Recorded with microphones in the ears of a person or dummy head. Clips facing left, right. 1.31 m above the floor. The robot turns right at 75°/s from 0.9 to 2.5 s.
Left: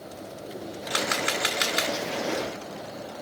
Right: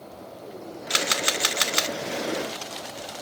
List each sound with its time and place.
0.9 s a camera shutter: 145° right, 0.9 m; by 2.0 s 65° right, 0.9 m